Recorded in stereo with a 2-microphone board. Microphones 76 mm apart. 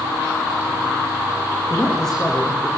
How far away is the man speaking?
About 7.5 m.